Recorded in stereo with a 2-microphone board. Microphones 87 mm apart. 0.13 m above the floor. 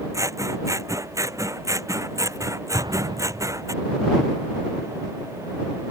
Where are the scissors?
35° right (ahead or behind).